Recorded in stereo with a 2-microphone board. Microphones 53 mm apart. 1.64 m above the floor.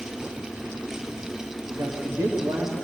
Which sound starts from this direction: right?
A man speaking, at 1.7 s.